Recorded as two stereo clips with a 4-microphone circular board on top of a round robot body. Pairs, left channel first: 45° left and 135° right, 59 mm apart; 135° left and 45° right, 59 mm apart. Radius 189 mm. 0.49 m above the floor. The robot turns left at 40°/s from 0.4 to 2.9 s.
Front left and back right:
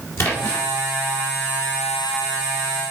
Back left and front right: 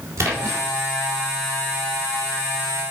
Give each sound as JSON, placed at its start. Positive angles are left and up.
{"t": 0.2, "sound": "a splash", "azimuth_deg": 0, "distance_m": 3.5}